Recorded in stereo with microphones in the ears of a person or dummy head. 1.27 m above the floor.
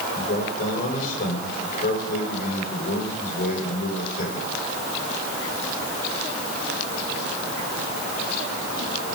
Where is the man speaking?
55° left (ahead or behind), 6.5 m.